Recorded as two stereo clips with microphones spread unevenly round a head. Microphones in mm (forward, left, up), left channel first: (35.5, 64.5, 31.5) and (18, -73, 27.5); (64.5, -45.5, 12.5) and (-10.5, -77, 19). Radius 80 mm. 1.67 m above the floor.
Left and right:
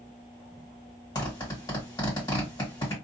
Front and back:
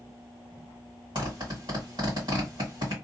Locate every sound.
1.1 s a zipper: 150° left, 1.5 m